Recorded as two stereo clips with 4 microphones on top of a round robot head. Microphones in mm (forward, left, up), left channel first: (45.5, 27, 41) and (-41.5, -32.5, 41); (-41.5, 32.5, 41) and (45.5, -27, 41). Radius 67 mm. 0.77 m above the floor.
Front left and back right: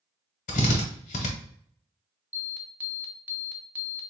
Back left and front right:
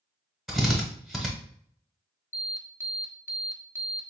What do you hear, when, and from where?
0.5 s a drill: 55° left, 0.9 m
2.3 s an alarm: 165° left, 0.8 m